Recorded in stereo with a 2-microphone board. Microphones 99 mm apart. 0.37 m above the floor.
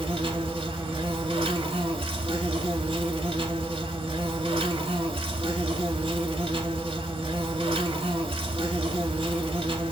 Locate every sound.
0.0 s an insect: 70° right (ahead or behind), 0.7 m